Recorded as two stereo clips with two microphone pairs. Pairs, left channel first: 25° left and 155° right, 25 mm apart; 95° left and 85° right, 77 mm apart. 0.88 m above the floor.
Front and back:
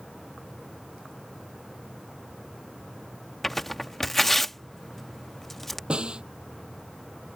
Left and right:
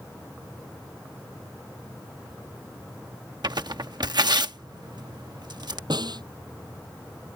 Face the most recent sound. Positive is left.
turn(degrees=-110)